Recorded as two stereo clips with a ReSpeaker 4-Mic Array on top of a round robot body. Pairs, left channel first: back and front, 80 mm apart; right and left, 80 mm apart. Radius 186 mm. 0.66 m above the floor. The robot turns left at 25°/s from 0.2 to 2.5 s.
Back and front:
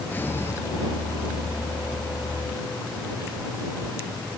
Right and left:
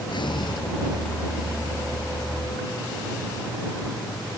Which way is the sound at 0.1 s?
115° right.